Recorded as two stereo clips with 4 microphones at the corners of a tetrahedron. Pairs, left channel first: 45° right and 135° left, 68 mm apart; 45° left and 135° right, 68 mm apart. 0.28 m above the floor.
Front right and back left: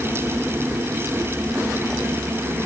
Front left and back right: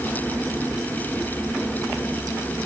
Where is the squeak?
I don't hear a squeak.